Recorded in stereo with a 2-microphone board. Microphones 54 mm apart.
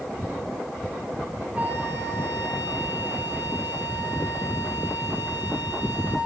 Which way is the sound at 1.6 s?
35° right (ahead or behind).